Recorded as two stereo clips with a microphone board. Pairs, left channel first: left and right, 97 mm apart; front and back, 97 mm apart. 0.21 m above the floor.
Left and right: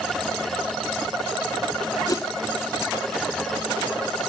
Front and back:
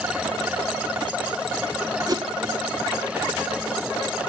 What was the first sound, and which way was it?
A whoosh, 135° left.